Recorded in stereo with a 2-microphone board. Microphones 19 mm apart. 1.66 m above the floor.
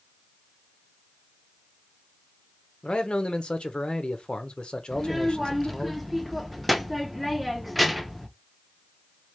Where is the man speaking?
70° left (ahead or behind), 0.7 m.